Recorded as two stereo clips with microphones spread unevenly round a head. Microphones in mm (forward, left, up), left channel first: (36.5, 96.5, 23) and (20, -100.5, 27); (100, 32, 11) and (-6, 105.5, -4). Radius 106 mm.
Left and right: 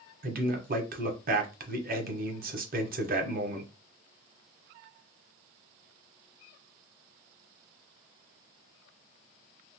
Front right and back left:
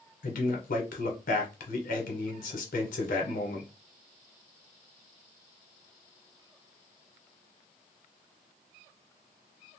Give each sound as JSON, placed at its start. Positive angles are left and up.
{"t": 0.2, "sound": "a man speaking", "azimuth_deg": -55, "distance_m": 0.9}